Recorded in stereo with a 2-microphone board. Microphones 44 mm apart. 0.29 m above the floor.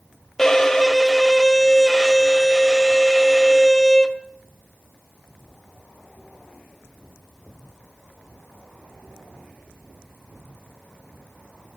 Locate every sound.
0.4 s a violin: 10° left (ahead or behind), 1.2 m